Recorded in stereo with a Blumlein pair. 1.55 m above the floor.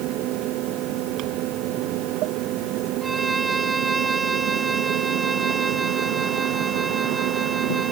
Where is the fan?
35° right.